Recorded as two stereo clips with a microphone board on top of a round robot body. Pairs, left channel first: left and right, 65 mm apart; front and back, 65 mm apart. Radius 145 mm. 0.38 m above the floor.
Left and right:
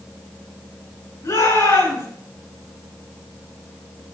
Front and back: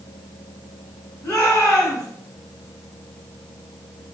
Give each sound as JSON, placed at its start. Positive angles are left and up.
{"t": 1.2, "sound": "a shout", "azimuth_deg": 70, "distance_m": 6.0}